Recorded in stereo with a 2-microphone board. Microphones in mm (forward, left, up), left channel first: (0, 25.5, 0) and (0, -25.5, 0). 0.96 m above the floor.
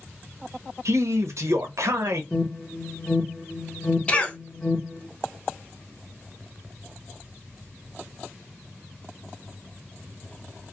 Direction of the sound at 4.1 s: 25° left (ahead or behind).